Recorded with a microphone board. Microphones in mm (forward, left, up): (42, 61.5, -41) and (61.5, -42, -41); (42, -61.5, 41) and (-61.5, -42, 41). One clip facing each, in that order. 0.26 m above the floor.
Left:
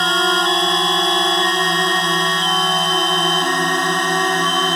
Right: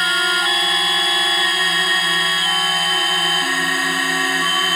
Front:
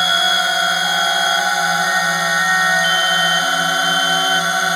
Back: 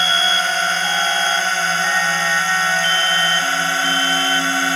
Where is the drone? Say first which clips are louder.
Left 4 dB, front 2 dB; 60° left; by 4.8 s 55° left.